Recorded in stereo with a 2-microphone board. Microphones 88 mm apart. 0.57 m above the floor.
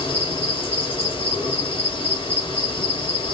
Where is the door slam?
No door slam in this recording.